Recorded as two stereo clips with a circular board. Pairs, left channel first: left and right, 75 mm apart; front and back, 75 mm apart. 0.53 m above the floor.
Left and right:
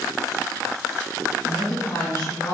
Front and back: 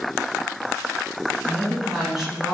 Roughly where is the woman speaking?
Left.